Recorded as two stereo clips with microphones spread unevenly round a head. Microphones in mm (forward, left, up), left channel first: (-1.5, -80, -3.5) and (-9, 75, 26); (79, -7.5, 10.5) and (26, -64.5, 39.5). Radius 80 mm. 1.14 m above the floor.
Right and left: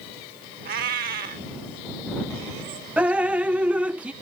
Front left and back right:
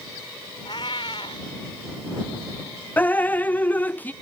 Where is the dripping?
5° left.